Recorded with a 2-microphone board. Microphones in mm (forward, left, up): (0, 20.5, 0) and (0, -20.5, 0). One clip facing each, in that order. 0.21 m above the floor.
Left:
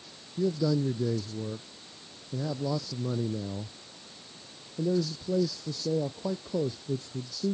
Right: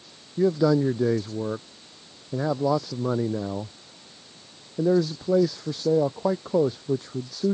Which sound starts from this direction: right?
A man speaking, at 0.4 s.